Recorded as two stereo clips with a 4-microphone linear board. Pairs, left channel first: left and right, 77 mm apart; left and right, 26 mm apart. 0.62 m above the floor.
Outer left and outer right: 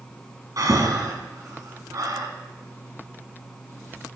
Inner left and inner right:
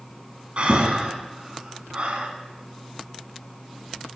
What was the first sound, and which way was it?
Breathing, 55° right (ahead or behind).